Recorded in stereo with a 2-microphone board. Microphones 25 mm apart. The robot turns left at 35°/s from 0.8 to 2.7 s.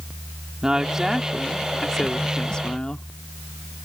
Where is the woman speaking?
155° right; by 3.1 s 140° left.